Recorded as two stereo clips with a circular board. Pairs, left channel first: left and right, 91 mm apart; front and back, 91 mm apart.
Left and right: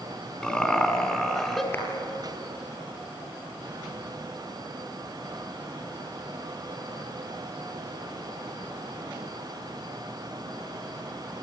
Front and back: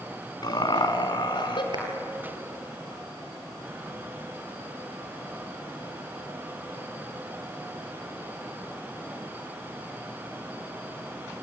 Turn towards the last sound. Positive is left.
turn(degrees=155)